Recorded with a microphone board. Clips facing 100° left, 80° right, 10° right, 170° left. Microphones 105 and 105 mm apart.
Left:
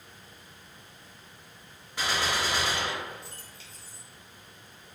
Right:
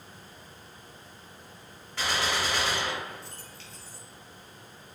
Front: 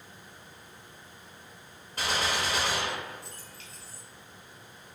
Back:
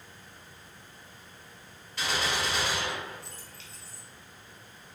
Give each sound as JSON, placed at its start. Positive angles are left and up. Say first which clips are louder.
{"t": 2.0, "sound": "a gunshot", "louder": "even, front 1 dB", "azimuth_deg": 25, "distance_m": 1.2}